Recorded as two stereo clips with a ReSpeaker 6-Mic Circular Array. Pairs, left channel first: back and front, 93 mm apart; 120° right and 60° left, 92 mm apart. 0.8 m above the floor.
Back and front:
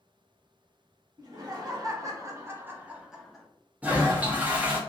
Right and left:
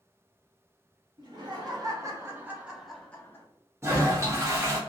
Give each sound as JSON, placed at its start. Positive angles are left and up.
{"t": 1.2, "sound": "laughter", "azimuth_deg": 35, "distance_m": 1.1}
{"t": 3.8, "sound": "a toilet flushing", "azimuth_deg": 55, "distance_m": 0.7}